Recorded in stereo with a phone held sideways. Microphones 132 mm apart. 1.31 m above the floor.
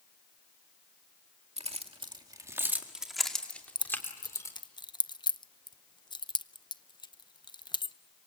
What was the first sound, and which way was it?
Keys jangling, 55° right (ahead or behind).